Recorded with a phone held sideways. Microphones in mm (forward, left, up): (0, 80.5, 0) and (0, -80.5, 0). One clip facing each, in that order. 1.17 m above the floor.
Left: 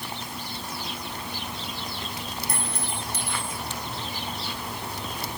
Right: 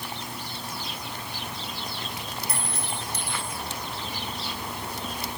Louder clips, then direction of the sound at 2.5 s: Left 1 dB; 55° left (ahead or behind).